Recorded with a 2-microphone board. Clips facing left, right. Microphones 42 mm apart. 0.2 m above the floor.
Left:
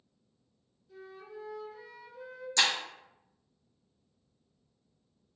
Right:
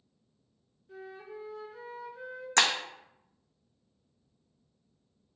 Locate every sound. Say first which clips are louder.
0.9 s a flute: right 3 dB; 40° right (ahead or behind), 1.4 m
2.6 s breaking glass: right 2 dB; 55° right (ahead or behind), 0.7 m